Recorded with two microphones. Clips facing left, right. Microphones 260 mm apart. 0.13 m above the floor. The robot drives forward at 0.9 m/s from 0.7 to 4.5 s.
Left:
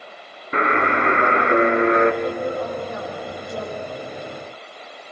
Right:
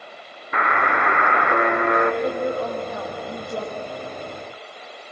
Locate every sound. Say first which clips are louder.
0.5 s a buzzer: left 5 dB; 30° left (ahead or behind), 1.3 m; by 2.1 s 25° left (ahead or behind), 1.6 m
2.2 s a woman speaking: right 1 dB; 50° right (ahead or behind), 9.5 m; by 3.8 s 45° right (ahead or behind), 10.5 m